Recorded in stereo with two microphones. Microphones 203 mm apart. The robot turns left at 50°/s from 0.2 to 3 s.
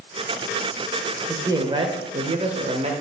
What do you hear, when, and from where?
1.3 s a man speaking: 25° right, 1.5 m; by 2.9 s 105° right, 1.5 m